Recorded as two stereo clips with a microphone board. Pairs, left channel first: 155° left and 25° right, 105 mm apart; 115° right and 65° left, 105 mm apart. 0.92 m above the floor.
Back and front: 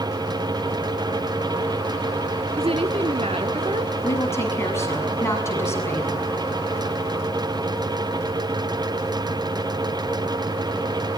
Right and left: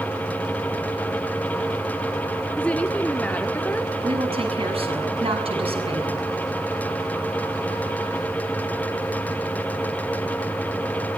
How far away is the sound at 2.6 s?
About 1.6 m.